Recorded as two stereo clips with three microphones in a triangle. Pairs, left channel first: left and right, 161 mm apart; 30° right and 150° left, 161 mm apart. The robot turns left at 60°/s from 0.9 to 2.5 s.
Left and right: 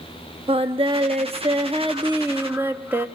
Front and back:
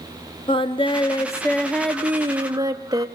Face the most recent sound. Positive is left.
turn(degrees=-160)